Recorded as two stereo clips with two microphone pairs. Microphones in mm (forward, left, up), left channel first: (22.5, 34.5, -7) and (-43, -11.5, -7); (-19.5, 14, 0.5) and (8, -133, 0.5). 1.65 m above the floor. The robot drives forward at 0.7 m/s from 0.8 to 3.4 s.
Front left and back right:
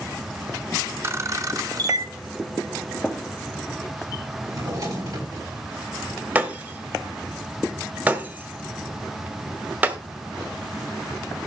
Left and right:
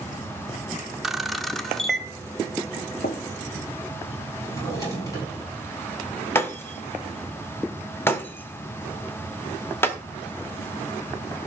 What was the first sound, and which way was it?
A camera shutter, 155° right.